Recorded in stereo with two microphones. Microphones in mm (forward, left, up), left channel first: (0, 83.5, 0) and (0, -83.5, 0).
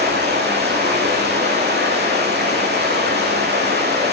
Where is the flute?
I don't hear a flute.